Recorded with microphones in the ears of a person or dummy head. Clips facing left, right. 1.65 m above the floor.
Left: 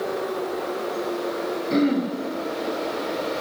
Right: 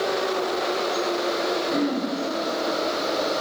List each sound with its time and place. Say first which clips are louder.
1.7 s throat clearing: left 8 dB; 45° left (ahead or behind), 4 m